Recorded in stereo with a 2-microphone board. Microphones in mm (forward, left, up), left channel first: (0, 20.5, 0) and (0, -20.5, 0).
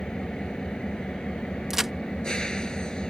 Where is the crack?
10° right (ahead or behind).